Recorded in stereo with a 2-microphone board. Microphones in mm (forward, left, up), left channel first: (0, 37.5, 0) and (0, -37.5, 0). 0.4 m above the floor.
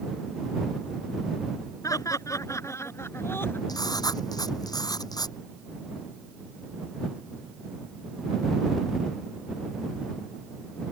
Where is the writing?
60° left (ahead or behind).